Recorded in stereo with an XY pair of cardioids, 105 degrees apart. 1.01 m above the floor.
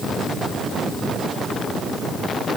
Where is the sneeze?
I don't hear a sneeze.